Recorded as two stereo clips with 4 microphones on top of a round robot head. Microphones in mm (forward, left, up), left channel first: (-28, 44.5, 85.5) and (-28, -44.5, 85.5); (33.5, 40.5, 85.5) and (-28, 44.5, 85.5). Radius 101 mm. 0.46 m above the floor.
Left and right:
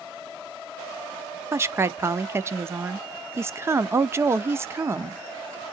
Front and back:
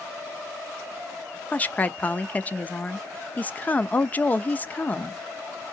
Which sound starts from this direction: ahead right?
A woman speaking, at 1.5 s.